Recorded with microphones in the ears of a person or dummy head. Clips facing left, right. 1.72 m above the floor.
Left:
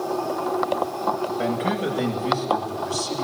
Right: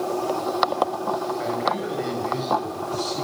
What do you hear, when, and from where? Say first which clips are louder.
1.4 s a man speaking: left 2 dB; 45° left (ahead or behind), 9.5 m; by 3.2 s 55° left (ahead or behind), 11 m